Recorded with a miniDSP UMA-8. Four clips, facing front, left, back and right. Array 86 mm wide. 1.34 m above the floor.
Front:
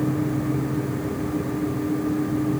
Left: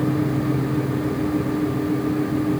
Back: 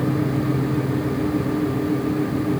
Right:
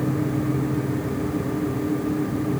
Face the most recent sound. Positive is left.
No sound to turn to.